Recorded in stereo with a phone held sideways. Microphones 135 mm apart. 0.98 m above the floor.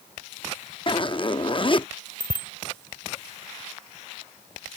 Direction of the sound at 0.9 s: 40° left (ahead or behind).